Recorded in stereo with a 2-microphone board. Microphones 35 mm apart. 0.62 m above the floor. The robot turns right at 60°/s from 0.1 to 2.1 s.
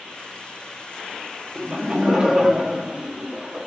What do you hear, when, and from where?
1.6 s laughter: 25° right (ahead or behind), 0.6 m; by 3.7 s 15° right (ahead or behind), 0.6 m